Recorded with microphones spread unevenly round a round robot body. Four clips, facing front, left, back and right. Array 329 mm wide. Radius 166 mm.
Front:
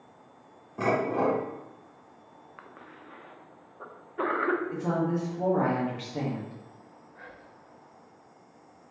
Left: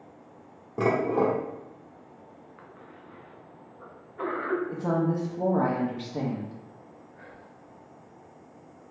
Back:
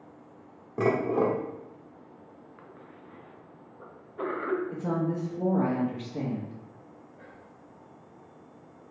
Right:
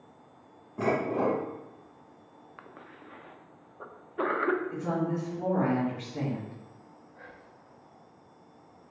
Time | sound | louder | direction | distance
0.8 | dishes clattering | left 3 dB, back 1 dB | 120° left | 1.1 m
2.6 | a cough | right 2 dB, front 3 dB | 75° right | 0.8 m
4.7 | a woman speaking | left 4 dB, front 1 dB | 125° left | 1.0 m
7.2 | whispering | left 2 dB, front 1 dB | 50° right | 1.3 m